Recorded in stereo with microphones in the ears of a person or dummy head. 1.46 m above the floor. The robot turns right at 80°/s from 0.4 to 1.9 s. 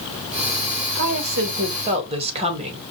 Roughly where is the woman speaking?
Right.